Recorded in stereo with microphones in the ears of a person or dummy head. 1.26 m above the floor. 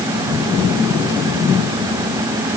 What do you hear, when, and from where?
Only background noise.